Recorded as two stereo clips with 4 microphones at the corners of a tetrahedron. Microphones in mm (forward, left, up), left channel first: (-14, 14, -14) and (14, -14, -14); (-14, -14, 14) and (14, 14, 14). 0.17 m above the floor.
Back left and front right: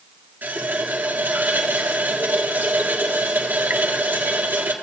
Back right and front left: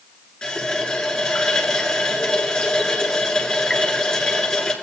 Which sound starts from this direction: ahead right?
A running tap, at 0.4 s.